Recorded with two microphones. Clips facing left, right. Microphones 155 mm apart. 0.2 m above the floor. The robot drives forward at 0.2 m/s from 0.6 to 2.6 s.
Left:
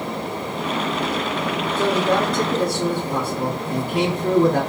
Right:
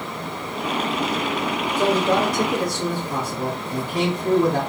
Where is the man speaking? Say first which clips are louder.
Even; 50° left (ahead or behind), 1.5 m.